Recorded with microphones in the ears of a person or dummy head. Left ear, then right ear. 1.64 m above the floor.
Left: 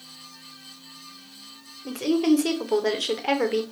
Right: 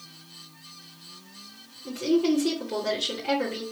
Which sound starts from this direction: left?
A woman speaking, at 1.9 s.